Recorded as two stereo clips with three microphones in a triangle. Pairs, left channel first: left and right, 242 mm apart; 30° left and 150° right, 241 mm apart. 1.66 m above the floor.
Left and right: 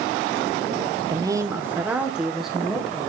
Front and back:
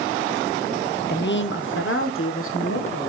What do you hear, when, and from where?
1.1 s a woman speaking: 20° right, 0.8 m; by 3.1 s straight ahead, 2.5 m